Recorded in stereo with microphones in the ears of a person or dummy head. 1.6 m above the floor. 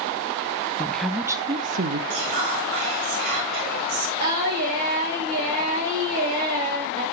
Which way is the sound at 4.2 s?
55° right (ahead or behind).